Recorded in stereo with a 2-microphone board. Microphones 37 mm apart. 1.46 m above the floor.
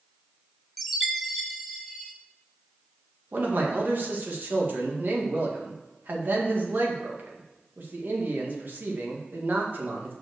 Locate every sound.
0.8 s a chime: centre (ahead or behind), 1.0 m
3.3 s a man speaking: 60° right (ahead or behind), 2.0 m